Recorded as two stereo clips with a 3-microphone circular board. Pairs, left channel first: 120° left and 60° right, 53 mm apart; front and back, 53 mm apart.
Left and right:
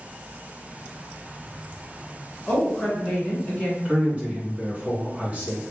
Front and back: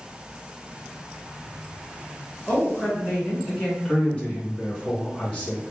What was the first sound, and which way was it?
A woman speaking, 70° left.